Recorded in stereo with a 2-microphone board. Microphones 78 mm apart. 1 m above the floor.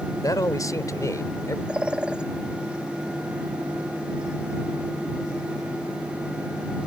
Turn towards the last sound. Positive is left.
turn(degrees=-10)  # may be behind; listen again after turning